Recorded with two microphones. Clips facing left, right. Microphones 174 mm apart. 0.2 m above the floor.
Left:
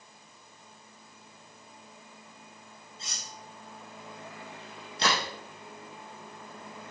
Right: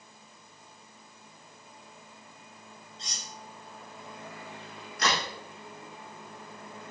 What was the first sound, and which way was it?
Cutlery clinking, 5° left (ahead or behind).